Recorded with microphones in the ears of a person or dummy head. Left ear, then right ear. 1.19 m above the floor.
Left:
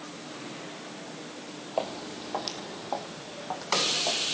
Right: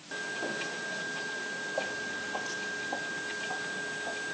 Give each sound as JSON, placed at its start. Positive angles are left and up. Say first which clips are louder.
{"t": 1.8, "sound": "footsteps", "louder": "left 5 dB", "side_deg": 35, "distance_m": 1.8}